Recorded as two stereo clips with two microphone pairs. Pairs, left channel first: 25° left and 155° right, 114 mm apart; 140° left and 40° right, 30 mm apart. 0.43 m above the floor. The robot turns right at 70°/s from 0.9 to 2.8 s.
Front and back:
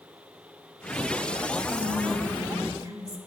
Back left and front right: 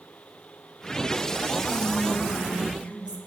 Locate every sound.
1.6 s whispering: 70° left, 1.3 m; by 3.2 s 150° left, 1.3 m